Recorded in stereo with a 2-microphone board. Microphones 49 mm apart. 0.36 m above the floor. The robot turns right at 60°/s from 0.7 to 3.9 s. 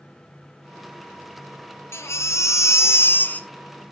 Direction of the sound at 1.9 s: 60° left.